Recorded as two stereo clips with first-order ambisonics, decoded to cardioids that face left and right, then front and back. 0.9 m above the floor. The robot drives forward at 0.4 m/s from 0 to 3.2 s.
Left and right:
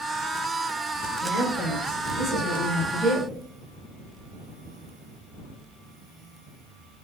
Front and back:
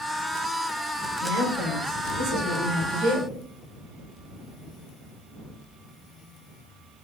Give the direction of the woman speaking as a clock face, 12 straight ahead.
7 o'clock.